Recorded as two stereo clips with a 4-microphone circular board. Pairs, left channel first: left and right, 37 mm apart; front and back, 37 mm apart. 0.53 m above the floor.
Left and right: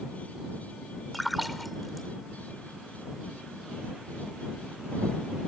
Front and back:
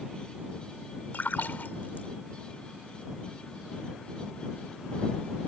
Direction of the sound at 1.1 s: Straight ahead.